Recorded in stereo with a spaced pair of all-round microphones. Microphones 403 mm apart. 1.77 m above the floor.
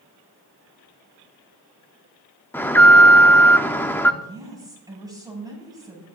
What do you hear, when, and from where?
2.5 s an alarm: 5° left (ahead or behind), 1.2 m
4.2 s a woman speaking: 10° right (ahead or behind), 9 m